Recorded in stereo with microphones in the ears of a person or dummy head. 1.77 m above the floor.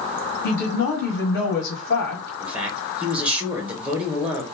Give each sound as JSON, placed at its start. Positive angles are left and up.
{"t": 0.4, "sound": "a woman speaking", "side_deg": 60, "distance_m": 1.3}
{"t": 2.4, "sound": "a man speaking", "side_deg": -5, "distance_m": 1.4}